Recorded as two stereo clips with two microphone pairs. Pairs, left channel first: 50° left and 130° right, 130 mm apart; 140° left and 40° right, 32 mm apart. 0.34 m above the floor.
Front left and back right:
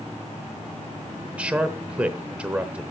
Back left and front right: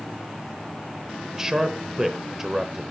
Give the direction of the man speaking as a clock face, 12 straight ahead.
3 o'clock.